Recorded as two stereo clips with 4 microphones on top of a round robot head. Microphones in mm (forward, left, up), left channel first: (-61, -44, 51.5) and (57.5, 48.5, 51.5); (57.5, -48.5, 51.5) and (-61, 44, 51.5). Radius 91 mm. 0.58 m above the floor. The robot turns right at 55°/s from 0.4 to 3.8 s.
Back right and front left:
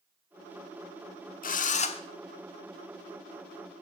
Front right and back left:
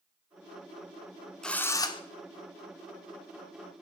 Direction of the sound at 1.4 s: 125° right.